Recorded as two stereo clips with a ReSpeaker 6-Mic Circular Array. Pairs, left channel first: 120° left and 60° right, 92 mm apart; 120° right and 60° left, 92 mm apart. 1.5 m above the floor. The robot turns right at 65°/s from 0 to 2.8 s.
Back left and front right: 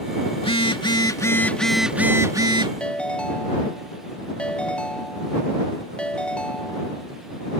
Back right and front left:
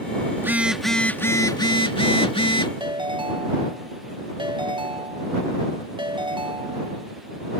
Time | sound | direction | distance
0.4 | a phone buzzing | 120° left | ?
2.8 | a ringtone | 45° left | ?